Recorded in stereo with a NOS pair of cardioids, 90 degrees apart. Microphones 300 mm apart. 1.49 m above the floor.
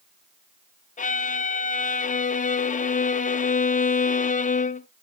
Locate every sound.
1.0 s a violin: 25° left, 0.6 m